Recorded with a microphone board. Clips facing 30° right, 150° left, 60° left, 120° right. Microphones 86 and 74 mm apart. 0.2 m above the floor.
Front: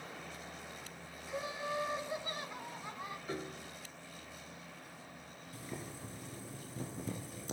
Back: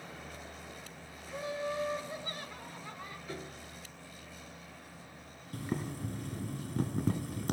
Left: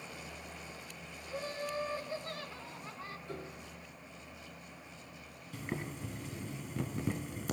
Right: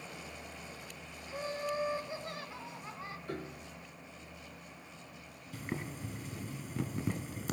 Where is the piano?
90° right, 1.6 m.